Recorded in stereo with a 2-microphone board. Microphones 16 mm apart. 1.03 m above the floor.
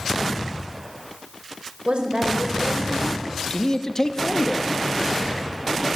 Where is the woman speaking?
80° right, 5.5 m.